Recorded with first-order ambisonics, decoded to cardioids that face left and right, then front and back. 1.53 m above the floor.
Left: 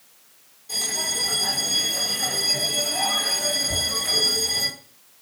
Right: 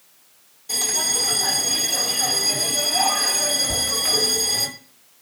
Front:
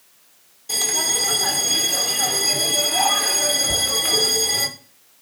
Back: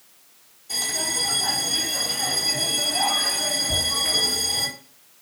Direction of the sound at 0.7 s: 25° right.